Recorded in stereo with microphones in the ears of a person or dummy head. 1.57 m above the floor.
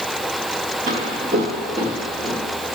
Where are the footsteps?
25° right (ahead or behind), 1.7 m; by 2.4 s 5° left (ahead or behind), 2 m.